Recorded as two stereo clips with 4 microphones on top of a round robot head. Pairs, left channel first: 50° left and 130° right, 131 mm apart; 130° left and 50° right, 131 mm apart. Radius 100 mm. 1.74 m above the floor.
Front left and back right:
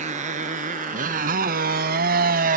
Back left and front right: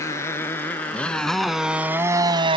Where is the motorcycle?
160° right; by 2.6 s 105° right.